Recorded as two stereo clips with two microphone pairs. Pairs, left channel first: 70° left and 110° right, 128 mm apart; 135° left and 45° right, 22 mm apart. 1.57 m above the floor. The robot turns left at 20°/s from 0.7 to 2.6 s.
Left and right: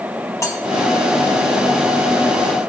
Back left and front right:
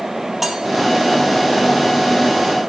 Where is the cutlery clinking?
25° left, 0.9 m.